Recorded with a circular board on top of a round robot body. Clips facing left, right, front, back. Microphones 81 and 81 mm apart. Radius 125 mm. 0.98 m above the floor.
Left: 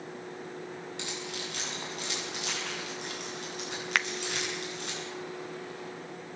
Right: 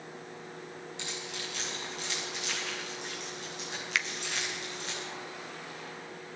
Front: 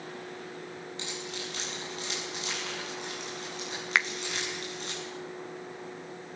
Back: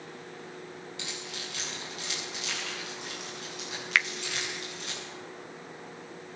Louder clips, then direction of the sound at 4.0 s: Left 3 dB, even; 65° left.